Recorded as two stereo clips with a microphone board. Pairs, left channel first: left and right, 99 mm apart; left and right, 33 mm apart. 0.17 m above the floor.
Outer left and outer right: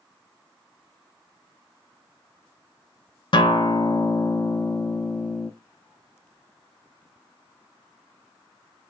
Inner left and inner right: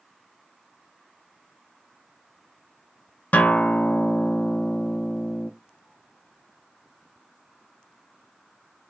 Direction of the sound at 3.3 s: 55° left (ahead or behind).